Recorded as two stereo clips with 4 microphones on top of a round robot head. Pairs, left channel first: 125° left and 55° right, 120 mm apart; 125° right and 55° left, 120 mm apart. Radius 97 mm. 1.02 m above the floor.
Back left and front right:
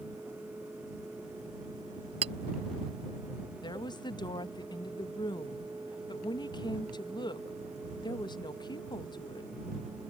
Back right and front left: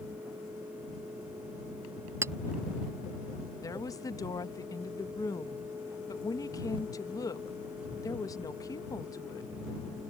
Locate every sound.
2.2 s a clink: 15° right
3.6 s a woman speaking: 175° left